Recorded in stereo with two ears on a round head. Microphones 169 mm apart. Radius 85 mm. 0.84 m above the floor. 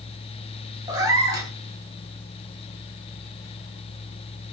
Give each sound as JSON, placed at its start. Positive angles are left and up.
{"t": 0.9, "sound": "a cat meowing", "side_deg": -15, "distance_m": 0.8}